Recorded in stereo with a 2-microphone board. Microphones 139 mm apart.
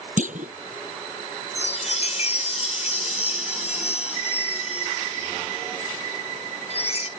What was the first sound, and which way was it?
A clunk, 70° right (ahead or behind).